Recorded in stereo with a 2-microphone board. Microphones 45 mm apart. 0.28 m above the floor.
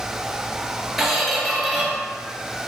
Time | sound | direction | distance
1.0 | a squeak | 5° right (ahead or behind) | 2.0 m